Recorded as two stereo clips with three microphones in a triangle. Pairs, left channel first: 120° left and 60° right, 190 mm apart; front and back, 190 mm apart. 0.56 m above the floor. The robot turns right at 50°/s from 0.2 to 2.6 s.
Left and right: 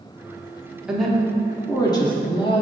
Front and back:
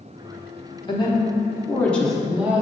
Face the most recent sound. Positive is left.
turn(degrees=110)